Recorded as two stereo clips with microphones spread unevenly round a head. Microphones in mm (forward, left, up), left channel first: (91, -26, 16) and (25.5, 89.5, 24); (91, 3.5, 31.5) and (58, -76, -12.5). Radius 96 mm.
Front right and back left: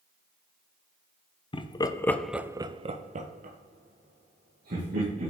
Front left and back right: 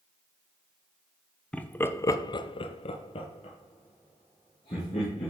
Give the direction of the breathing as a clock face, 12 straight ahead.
I don't hear breathing.